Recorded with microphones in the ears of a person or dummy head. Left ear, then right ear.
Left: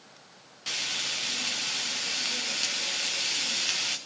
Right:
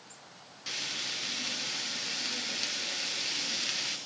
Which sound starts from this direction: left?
Frying, at 0.7 s.